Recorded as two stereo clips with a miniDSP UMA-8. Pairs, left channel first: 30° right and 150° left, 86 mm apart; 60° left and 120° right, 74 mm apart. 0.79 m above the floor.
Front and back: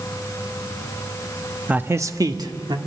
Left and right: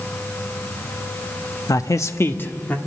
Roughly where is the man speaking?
Left.